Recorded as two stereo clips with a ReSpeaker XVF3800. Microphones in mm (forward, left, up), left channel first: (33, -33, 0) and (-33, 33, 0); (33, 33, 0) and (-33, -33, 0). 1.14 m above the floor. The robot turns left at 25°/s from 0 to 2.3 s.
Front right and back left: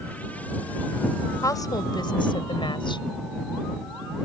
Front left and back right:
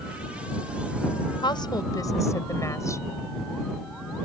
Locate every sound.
1.4 s a woman speaking: 10° left; by 3.0 s 15° right